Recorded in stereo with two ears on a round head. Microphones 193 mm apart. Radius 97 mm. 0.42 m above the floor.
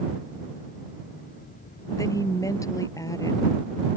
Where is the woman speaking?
15° left (ahead or behind).